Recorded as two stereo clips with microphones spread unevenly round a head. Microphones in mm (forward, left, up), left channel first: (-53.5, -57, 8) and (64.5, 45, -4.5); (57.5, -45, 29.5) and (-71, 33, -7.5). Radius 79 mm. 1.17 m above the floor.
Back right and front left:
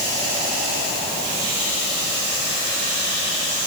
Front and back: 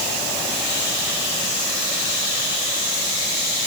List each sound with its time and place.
Only background noise.